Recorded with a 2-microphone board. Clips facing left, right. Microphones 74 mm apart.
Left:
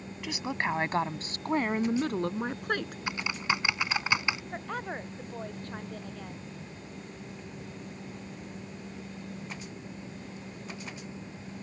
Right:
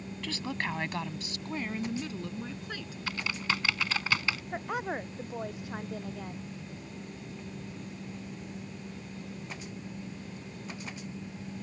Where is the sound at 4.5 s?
10° right (ahead or behind).